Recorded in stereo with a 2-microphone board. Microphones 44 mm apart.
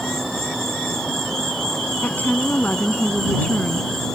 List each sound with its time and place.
0.0 s an insect: 5° left (ahead or behind)
2.0 s a woman speaking: 40° left (ahead or behind)